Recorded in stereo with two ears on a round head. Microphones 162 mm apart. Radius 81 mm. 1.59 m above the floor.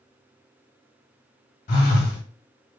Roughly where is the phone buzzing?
Left.